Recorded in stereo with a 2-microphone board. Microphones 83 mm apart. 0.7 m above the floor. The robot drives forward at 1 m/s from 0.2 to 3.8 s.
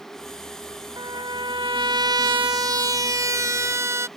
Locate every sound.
1.0 s a trumpet: 70° right (ahead or behind); by 4.1 s 35° right (ahead or behind)